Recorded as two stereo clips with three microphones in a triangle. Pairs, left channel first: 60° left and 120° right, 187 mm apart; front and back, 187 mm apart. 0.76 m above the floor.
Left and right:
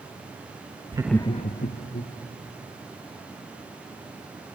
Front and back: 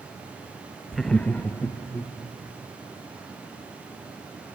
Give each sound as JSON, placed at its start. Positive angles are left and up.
{"t": 0.9, "sound": "laughter", "azimuth_deg": -90, "distance_m": 0.5}